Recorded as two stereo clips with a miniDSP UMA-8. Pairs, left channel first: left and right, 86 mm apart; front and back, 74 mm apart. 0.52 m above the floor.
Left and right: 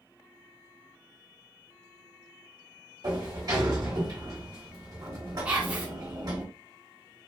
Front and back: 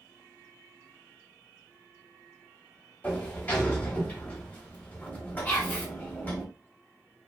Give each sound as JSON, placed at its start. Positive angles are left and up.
{"t": 3.0, "sound": "a sliding door", "azimuth_deg": -60, "distance_m": 1.1}
{"t": 5.5, "sound": "whispering", "azimuth_deg": -30, "distance_m": 1.2}